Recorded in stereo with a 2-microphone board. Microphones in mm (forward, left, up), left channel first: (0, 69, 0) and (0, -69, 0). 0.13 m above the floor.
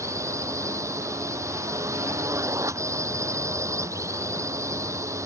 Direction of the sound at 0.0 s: 20° right (ahead or behind).